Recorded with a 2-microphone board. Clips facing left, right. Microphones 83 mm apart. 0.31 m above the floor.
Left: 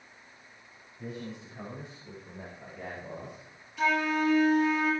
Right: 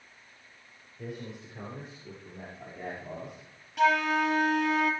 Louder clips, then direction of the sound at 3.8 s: Right 3 dB; 65° right (ahead or behind).